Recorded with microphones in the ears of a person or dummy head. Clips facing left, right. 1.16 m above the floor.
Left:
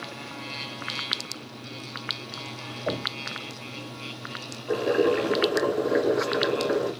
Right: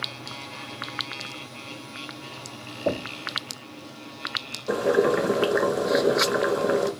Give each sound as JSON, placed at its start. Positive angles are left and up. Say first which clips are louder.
{"t": 2.9, "sound": "knocking", "louder": "right 4 dB", "side_deg": -65, "distance_m": 1.7}
{"t": 4.7, "sound": "boiling", "louder": "right 1 dB", "side_deg": -55, "distance_m": 1.5}